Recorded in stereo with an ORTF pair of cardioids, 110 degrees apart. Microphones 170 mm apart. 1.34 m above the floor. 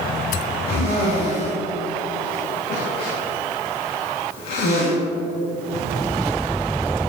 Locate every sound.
0.7 s a cough: 60° left, 2.5 m